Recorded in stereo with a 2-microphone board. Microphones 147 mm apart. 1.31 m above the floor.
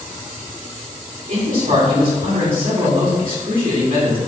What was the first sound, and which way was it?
A man speaking, 75° right (ahead or behind).